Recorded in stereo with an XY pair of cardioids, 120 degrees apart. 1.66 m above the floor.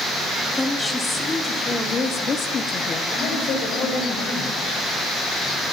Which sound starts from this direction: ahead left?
A man speaking, at 3.1 s.